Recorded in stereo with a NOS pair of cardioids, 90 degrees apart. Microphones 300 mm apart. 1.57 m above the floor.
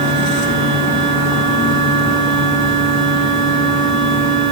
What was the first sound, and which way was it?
A machine running, 65° right.